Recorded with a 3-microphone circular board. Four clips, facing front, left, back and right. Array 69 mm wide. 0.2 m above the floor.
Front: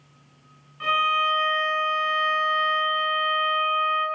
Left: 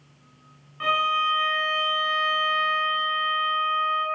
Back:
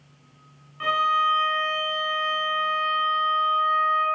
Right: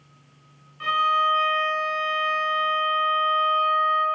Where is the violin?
130° left, 1.5 m.